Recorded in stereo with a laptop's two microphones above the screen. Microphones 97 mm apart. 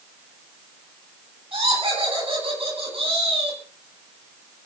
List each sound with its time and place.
1.5 s laughter: 70° right (ahead or behind), 10 m; by 3.6 s 80° right, 9.5 m